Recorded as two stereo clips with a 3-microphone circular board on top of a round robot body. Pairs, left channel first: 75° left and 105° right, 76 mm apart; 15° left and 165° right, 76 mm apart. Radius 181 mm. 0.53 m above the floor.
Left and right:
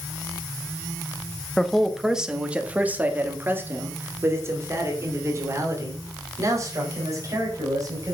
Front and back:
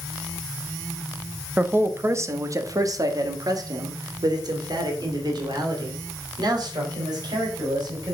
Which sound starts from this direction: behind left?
A man speaking, at 1.6 s.